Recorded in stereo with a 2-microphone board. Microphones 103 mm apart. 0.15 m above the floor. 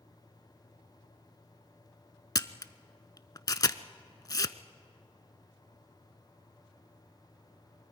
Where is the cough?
I don't hear a cough.